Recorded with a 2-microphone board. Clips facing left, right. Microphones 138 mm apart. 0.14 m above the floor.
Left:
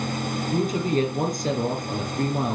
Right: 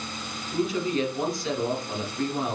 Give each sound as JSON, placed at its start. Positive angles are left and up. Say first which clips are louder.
{"t": 0.5, "sound": "a woman speaking", "louder": "left 2 dB", "side_deg": 45, "distance_m": 2.0}